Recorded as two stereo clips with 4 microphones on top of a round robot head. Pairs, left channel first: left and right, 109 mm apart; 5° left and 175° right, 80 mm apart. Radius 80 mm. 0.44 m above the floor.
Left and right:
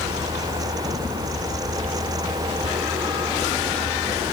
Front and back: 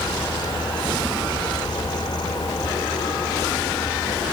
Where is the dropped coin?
No dropped coin in this recording.